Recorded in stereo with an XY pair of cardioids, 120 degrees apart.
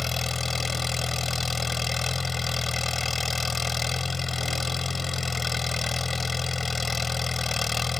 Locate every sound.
0.0 s an engine running: 20° left